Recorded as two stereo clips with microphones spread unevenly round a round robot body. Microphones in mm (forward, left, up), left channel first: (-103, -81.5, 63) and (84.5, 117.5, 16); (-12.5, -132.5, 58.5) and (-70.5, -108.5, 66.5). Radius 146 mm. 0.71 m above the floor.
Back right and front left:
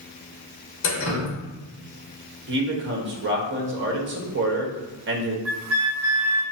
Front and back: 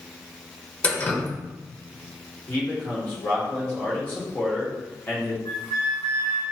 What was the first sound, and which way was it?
Dripping, 90° right.